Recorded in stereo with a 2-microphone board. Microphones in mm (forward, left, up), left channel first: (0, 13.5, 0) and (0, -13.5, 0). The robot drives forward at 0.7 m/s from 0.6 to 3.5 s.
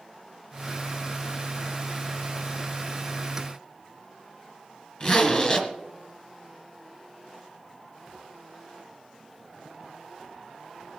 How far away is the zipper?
About 1.8 m.